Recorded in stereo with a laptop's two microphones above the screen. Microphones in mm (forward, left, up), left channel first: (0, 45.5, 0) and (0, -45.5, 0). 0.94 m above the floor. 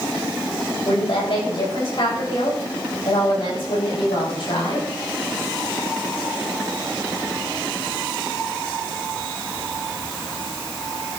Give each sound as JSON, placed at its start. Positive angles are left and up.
{"t": 0.8, "sound": "a woman speaking", "side_deg": 70, "distance_m": 6.5}